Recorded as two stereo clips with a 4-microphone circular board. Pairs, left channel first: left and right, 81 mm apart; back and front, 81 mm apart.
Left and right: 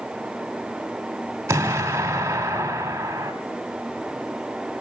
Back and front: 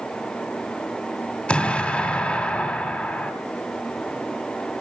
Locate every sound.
1.5 s an explosion: 115° right, 1.7 m